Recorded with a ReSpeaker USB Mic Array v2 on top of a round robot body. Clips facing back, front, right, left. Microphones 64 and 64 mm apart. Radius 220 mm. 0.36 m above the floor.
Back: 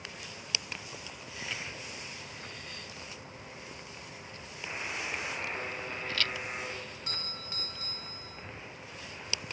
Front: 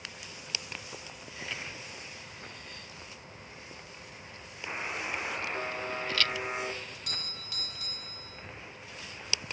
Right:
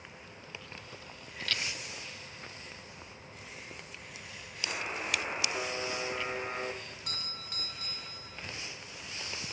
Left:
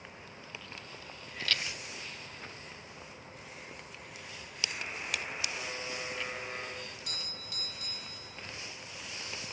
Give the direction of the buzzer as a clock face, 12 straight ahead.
3 o'clock.